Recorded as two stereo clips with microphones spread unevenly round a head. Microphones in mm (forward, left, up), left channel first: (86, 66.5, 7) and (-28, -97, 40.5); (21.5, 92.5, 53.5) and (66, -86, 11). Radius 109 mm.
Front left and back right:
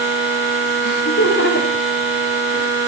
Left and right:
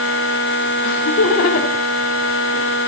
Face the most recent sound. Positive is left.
turn(degrees=125)